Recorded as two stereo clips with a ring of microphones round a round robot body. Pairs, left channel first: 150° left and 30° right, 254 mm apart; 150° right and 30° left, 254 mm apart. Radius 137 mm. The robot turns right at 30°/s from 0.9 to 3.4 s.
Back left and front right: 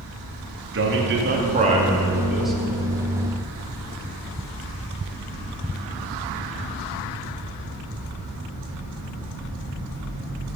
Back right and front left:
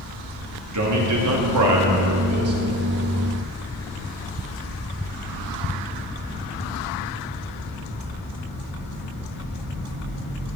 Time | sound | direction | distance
0.7 | a man speaking | 10° left | 2 m